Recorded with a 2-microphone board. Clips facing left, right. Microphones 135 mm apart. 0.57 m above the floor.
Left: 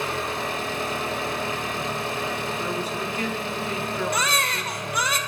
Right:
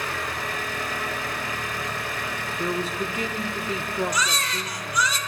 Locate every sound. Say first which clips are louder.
0.0 s an engine running: left 3 dB; 25° left (ahead or behind), 0.8 m
2.6 s a man speaking: right 1 dB; 25° right (ahead or behind), 1.1 m
4.1 s a baby crying: left 2 dB; 60° left (ahead or behind), 0.8 m